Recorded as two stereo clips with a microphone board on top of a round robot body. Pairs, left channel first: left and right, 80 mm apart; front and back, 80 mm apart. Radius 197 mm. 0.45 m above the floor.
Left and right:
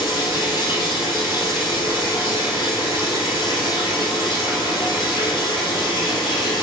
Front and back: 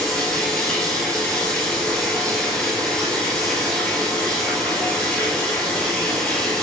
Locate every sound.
0.0 s running water: 80° left, 1.6 m